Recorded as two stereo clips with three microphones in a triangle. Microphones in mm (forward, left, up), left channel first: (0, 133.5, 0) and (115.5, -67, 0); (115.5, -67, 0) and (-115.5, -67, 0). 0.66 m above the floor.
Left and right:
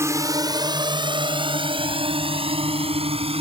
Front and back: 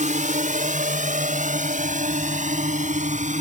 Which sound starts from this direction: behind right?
A drone, at 0.0 s.